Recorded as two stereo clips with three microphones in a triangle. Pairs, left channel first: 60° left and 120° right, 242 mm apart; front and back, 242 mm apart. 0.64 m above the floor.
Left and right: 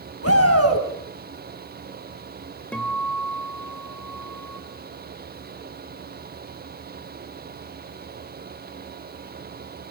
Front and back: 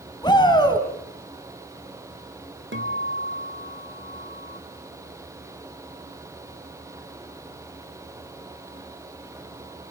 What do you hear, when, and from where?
0.2 s a shout: 75° left, 5 m
2.7 s a guitar: 145° left, 2 m